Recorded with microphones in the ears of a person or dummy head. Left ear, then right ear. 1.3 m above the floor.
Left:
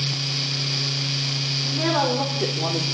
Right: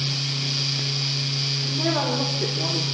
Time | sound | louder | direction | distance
1.6 | a woman speaking | left 5 dB | 25° left (ahead or behind) | 5 m